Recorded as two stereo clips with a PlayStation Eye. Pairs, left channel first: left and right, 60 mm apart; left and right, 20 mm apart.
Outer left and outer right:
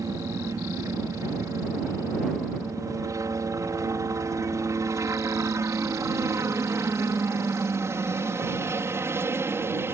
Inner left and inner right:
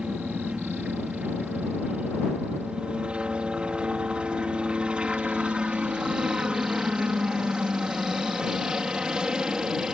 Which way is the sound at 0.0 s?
60° right (ahead or behind).